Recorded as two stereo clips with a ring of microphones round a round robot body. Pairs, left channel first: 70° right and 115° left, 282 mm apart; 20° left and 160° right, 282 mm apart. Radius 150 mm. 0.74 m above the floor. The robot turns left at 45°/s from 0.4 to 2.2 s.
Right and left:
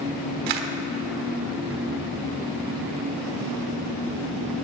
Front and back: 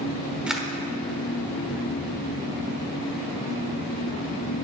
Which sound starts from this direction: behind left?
A camera shutter, at 0.5 s.